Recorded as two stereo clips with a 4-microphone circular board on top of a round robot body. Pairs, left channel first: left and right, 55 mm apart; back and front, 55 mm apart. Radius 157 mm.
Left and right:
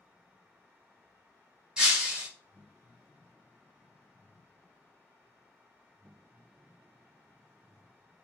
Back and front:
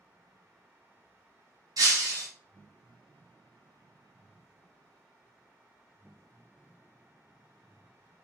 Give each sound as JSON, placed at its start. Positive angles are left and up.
{"t": 1.8, "sound": "breaking glass", "azimuth_deg": -10, "distance_m": 1.0}